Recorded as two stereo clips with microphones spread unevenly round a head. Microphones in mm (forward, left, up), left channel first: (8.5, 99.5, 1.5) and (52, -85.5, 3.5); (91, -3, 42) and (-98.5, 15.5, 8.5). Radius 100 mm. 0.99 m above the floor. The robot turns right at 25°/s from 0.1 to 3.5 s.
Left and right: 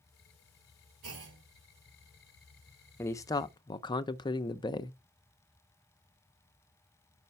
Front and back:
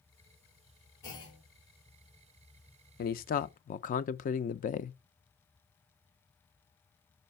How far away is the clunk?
About 3 m.